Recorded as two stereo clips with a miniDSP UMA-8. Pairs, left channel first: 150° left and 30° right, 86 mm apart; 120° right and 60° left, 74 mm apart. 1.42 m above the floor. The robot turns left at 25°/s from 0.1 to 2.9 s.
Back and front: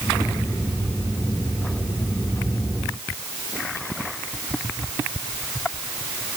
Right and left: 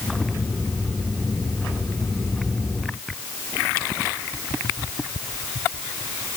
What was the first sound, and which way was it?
Only background noise.